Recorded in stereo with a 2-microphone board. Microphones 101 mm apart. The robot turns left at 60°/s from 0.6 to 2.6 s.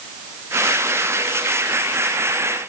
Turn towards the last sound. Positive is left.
No sound to turn to.